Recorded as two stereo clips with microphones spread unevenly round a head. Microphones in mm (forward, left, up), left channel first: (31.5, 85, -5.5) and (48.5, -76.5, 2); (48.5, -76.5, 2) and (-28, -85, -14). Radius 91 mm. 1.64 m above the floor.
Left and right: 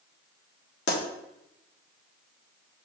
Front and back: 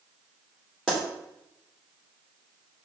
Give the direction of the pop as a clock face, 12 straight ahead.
9 o'clock.